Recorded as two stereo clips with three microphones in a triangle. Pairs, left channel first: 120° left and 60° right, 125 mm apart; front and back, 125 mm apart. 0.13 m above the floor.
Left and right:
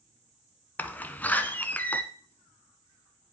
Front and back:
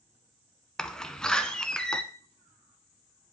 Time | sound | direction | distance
0.8 | a door slam | 70° left | 0.9 m